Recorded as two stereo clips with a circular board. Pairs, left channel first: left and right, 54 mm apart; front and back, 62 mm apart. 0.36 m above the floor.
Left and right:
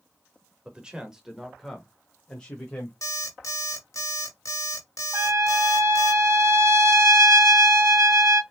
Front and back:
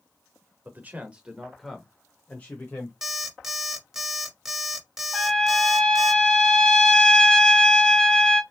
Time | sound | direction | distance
0.7 | a man speaking | 150° right | 1.2 m
3.0 | an alarm clock | 95° left | 1.6 m
5.1 | a trumpet | 75° right | 0.8 m